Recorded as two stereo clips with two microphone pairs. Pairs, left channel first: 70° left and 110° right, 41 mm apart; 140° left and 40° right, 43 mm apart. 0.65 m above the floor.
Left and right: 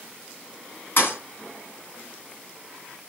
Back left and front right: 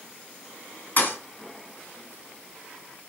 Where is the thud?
95° left, 2.5 m.